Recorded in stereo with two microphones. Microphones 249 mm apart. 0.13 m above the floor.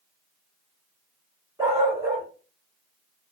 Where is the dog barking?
10° right (ahead or behind), 2.5 m.